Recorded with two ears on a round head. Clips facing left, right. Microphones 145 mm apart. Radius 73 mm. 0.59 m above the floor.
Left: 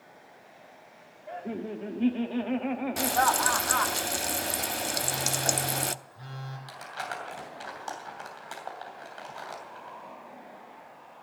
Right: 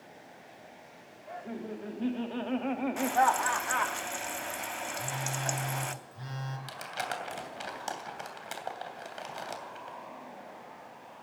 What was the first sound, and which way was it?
Laughter, 35° left (ahead or behind).